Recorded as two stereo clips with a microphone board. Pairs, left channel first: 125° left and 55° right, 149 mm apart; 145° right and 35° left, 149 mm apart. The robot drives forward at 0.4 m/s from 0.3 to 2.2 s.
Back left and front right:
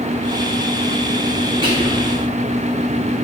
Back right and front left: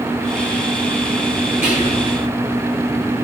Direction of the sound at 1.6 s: 115° right.